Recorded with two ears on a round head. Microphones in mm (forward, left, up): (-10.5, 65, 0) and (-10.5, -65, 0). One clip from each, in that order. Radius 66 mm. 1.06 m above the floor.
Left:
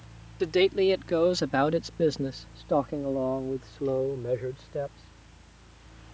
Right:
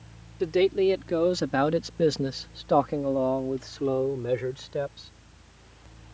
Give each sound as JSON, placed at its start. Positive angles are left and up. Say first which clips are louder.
{"t": 0.4, "sound": "a man speaking", "louder": "even", "side_deg": 40}